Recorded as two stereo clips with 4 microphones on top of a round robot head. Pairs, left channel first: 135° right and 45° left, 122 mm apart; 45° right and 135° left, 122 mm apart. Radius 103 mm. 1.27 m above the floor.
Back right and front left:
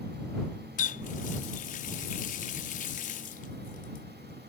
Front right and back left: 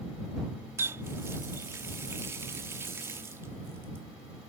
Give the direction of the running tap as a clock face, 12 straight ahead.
5 o'clock.